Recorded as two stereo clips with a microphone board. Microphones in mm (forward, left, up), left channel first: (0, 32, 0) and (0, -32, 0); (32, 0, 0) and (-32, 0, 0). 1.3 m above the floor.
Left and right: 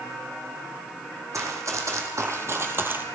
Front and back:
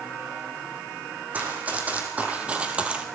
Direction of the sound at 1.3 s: 115° right.